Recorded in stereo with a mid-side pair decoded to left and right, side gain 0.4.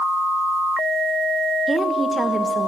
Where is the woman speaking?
25° right, 1.3 m.